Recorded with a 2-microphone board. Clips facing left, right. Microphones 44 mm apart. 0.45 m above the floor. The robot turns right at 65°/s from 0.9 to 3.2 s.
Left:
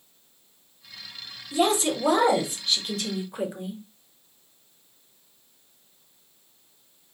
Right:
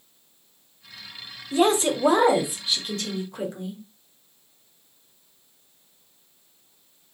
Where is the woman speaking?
85° right, 0.9 m; by 3.8 s 25° left, 0.9 m.